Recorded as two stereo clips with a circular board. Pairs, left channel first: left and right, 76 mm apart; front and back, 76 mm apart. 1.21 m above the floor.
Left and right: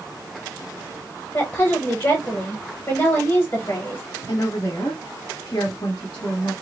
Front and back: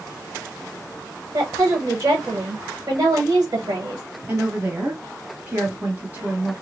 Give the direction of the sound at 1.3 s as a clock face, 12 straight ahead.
7 o'clock.